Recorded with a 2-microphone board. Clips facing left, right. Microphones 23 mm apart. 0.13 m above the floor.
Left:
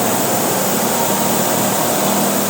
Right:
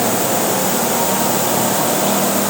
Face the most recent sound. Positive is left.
No sound to turn to.